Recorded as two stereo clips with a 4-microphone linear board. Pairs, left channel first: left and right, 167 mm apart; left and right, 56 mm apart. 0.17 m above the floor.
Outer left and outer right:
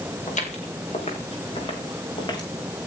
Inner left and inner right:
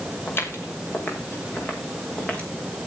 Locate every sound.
0.3 s footsteps: 45° left (ahead or behind), 6.5 m; by 2.5 s 25° left (ahead or behind), 6 m